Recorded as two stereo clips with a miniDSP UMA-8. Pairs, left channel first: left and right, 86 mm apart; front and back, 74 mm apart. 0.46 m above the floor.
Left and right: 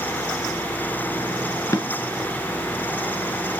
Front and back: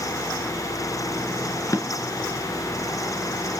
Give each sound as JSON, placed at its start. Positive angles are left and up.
{"t": 1.7, "sound": "a drawer", "azimuth_deg": 40, "distance_m": 1.7}